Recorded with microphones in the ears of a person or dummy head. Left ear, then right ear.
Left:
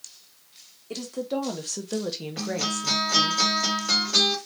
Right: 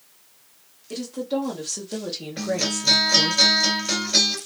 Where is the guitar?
15° left (ahead or behind), 1.6 m.